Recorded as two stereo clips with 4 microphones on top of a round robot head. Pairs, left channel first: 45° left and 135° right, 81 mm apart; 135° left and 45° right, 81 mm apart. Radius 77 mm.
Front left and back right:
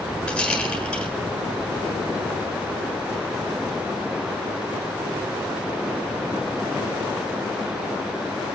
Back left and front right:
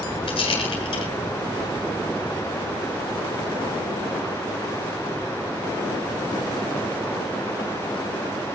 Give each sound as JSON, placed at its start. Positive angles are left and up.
{"t": 0.3, "sound": "a rattle", "azimuth_deg": 125, "distance_m": 8.0}